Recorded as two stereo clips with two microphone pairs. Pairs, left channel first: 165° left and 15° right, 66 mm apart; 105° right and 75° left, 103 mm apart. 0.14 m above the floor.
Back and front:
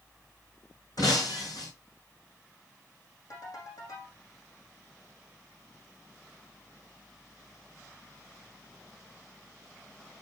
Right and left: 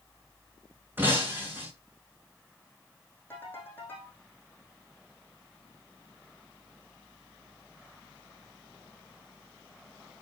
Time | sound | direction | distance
1.0 | breaking glass | 145° left | 5.5 m
3.3 | a ringtone | 175° right | 5 m